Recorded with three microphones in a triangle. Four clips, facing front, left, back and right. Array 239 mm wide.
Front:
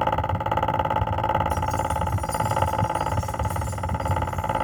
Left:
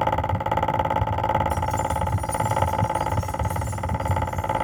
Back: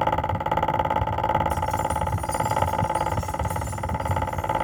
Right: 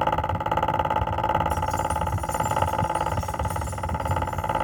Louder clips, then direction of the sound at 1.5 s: Left 1 dB, even; 75° right.